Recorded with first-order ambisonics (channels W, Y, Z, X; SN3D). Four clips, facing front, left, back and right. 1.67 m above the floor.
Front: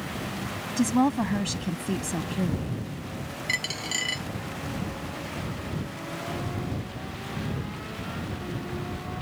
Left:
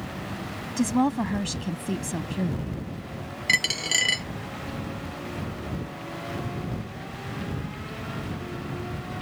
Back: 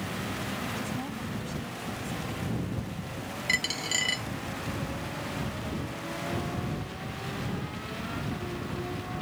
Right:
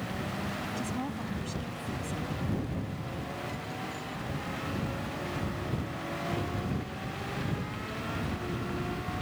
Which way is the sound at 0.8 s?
45° left.